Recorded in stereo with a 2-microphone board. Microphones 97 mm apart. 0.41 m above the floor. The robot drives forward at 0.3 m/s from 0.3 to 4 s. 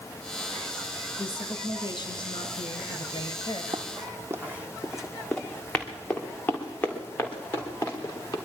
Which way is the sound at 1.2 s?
55° left (ahead or behind).